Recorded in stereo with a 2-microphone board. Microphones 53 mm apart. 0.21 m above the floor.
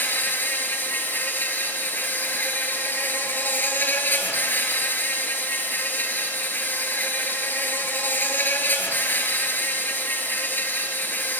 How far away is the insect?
About 2.5 m.